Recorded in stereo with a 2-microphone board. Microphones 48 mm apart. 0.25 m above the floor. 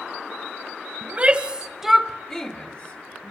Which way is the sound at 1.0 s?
30° right (ahead or behind).